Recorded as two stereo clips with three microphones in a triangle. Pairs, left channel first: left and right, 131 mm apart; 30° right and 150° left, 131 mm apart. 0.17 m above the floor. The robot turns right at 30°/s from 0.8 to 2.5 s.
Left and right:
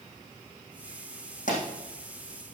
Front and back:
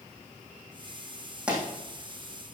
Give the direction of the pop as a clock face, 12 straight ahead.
10 o'clock.